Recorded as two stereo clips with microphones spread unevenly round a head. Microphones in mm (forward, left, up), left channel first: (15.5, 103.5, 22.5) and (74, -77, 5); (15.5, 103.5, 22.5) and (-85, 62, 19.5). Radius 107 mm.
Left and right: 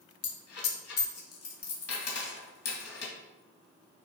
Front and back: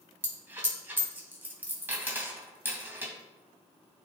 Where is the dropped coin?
130° left, 2.5 m.